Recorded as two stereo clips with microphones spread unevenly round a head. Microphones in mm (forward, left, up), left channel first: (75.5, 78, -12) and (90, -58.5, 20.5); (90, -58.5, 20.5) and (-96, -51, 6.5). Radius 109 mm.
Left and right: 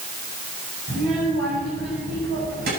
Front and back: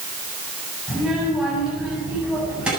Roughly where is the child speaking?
Right.